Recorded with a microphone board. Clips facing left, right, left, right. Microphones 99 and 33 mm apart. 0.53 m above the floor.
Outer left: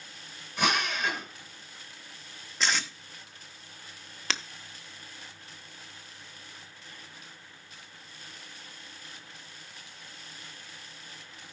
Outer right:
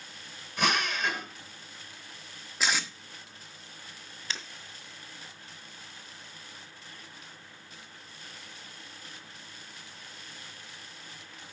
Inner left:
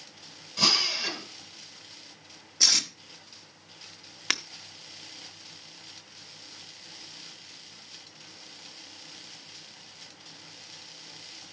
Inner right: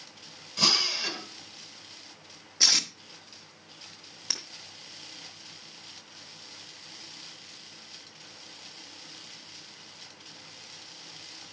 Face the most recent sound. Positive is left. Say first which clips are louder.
# outer left 5 dB, inner left 8 dB
turn(degrees=75)  # may be behind; listen again after turning